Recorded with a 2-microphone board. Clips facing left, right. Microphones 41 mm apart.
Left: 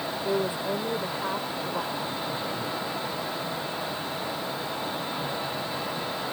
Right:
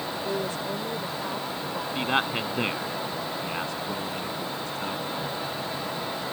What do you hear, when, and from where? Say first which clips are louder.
0.2 s a woman speaking: left 4 dB; 20° left (ahead or behind)
1.9 s a man speaking: right 5 dB; 90° right